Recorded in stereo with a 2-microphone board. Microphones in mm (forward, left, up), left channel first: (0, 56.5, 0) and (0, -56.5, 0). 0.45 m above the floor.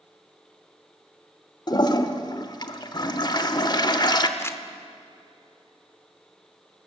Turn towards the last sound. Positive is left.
turn(degrees=25)  # may be behind; listen again after turning